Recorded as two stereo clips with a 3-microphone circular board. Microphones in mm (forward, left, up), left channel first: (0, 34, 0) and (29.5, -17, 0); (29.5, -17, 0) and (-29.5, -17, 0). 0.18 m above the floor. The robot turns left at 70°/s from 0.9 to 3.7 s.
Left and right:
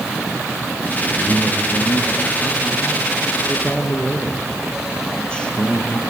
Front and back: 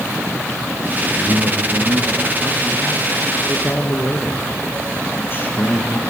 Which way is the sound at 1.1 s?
130° right.